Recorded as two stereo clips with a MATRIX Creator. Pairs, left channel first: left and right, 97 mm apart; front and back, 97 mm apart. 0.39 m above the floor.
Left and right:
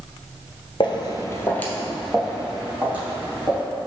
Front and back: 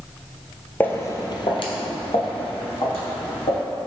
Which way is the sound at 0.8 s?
70° left.